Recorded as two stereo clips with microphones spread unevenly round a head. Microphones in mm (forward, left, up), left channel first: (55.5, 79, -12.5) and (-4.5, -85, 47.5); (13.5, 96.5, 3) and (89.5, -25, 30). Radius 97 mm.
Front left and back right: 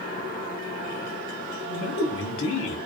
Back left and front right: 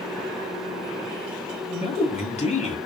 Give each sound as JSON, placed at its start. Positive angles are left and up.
{"t": 1.7, "sound": "a man speaking", "azimuth_deg": 80, "distance_m": 1.4}